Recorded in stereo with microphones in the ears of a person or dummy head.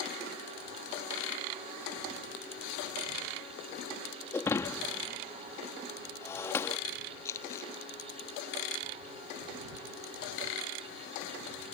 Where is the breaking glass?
10° left (ahead or behind).